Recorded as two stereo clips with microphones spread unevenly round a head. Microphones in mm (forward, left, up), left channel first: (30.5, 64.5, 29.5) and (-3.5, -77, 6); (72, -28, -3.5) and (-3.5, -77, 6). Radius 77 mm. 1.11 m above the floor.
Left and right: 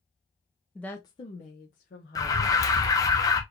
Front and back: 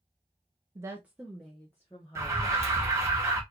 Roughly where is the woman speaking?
Behind.